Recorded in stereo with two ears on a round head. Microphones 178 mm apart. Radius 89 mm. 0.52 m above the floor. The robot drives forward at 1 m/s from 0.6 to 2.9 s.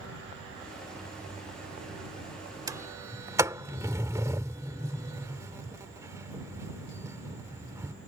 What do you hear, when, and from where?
2.7 s a sliding door: 20° right (ahead or behind); by 7.9 s 15° right (ahead or behind)